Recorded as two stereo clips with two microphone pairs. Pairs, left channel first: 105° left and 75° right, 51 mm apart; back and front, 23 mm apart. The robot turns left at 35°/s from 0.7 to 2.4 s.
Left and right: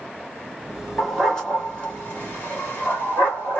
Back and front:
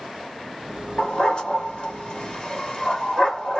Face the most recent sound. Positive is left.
turn(degrees=145)